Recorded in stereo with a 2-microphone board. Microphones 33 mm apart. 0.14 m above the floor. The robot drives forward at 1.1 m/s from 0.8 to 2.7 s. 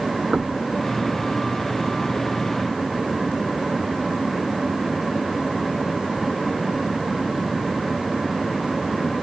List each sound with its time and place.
0.3 s knocking: 25° right (ahead or behind)